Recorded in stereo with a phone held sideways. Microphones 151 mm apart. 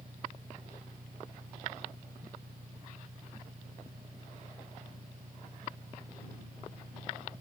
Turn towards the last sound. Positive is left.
turn(degrees=-80)